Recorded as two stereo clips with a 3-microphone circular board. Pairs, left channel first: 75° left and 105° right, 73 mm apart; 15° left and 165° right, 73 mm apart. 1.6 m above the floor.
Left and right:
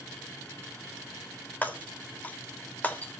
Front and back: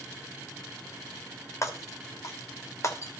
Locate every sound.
1.6 s breaking glass: 15° left, 1.3 m